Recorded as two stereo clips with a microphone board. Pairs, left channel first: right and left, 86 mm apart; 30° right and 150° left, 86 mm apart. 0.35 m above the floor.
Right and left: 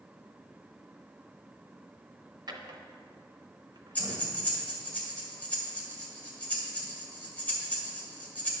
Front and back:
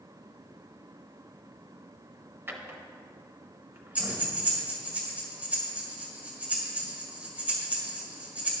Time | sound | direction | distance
2.5 | a drawer | 90° left | 0.8 m
4.0 | breathing | 150° right | 1.7 m